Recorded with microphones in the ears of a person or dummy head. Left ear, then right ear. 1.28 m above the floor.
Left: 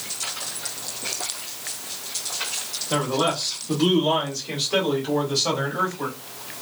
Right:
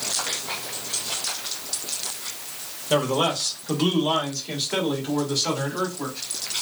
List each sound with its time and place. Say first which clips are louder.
2.9 s a man speaking: right 2 dB; 75° right (ahead or behind), 1.0 m; by 6.2 s 5° right (ahead or behind), 2.5 m